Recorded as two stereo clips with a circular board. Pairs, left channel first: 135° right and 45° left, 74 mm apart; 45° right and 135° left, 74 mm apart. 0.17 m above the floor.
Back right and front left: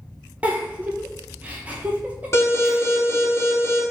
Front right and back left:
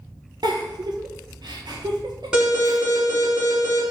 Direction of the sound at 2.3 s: 150° right.